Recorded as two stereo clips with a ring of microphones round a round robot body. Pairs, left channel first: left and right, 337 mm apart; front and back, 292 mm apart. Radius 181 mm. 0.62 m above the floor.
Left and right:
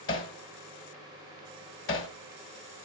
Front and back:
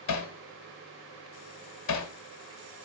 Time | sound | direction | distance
0.1 | hammering | 35° left | 1.5 m